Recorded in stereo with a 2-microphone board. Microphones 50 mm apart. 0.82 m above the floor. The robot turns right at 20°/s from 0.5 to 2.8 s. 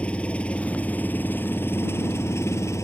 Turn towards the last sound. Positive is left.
turn(degrees=70)